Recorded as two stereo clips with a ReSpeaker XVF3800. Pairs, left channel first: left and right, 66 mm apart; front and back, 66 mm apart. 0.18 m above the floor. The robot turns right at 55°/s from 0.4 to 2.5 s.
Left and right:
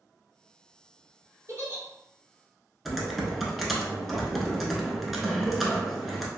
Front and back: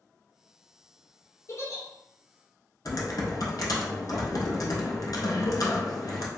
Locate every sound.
1.5 s a giggle: 50° right, 1.0 m; by 1.8 s 35° right, 1.0 m
2.9 s typing on a keyboard: straight ahead, 0.6 m